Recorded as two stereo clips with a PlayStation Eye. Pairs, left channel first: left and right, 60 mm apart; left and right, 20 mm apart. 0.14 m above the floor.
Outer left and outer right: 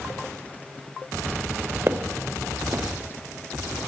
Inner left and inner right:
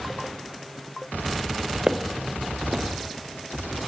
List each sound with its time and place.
1.9 s footsteps: 40° right (ahead or behind), 0.9 m